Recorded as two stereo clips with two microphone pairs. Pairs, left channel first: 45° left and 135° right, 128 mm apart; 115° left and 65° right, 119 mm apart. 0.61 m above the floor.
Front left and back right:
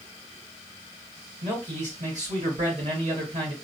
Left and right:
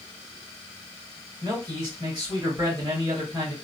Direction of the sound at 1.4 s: 115° right.